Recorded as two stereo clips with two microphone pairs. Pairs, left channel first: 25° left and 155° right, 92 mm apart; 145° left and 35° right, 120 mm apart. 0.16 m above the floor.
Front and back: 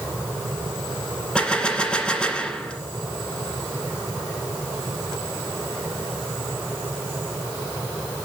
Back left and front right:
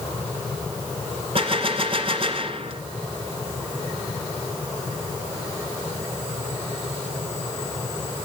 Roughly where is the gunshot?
Ahead right.